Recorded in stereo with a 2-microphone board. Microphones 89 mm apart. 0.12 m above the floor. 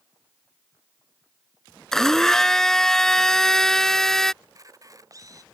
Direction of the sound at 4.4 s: 40° right (ahead or behind).